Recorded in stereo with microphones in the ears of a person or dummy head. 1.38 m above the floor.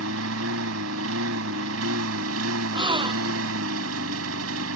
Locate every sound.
0.0 s a lawn mower: 75° right (ahead or behind)
2.7 s a gasp: 20° right (ahead or behind)